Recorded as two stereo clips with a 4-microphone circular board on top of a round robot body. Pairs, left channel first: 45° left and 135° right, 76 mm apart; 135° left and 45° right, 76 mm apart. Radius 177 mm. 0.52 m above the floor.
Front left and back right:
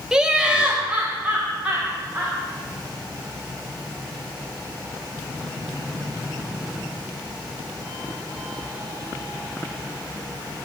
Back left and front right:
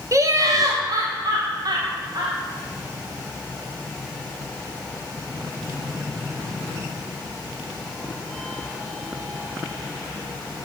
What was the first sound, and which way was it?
Laughter, 60° right.